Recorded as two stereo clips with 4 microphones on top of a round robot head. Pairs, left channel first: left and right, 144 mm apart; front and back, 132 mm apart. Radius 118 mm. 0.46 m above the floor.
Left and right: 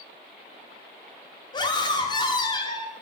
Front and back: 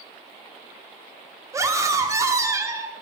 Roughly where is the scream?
Behind left.